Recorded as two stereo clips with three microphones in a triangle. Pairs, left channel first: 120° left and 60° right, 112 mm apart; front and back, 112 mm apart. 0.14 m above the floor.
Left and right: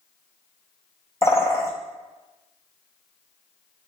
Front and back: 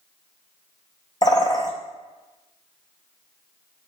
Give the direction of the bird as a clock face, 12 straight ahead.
10 o'clock.